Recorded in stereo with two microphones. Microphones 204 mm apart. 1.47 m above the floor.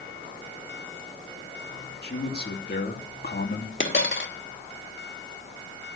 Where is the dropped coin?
70° left (ahead or behind), 2.5 m.